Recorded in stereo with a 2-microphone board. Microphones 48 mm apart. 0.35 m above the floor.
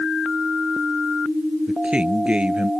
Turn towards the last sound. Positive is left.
turn(degrees=-25)  # may be behind; listen again after turning